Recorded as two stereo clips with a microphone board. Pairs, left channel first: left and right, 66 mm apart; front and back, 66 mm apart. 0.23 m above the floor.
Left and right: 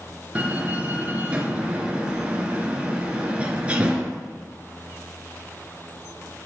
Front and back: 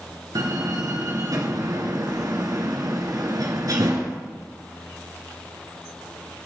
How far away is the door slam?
About 2.5 m.